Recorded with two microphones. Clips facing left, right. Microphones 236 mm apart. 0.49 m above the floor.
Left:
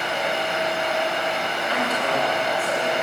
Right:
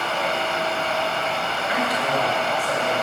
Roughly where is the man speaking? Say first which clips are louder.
Right 1 dB; centre.